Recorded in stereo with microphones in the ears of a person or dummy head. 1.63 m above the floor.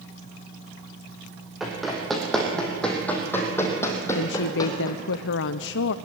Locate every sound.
1.6 s running footsteps: centre (ahead or behind), 5 m; by 5.2 s 30° left (ahead or behind), 4 m
4.2 s a woman speaking: 70° left (ahead or behind), 0.6 m